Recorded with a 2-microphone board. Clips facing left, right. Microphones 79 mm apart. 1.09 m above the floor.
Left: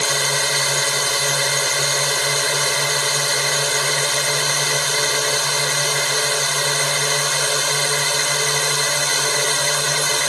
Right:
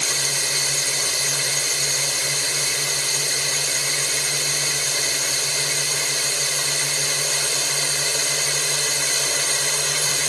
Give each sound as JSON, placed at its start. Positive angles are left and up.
{"t": 0.0, "sound": "a drone", "side_deg": 70}